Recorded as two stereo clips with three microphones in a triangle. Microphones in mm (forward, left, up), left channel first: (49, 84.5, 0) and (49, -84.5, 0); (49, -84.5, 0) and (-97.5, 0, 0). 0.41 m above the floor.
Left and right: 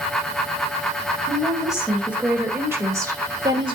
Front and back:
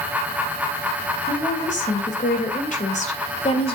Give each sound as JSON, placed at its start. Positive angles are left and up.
{"t": 1.3, "sound": "a woman speaking", "azimuth_deg": 0, "distance_m": 3.0}